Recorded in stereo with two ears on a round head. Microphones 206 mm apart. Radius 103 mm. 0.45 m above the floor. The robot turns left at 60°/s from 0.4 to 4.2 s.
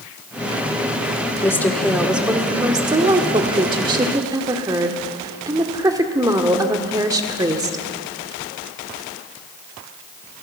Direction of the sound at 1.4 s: 10° left (ahead or behind).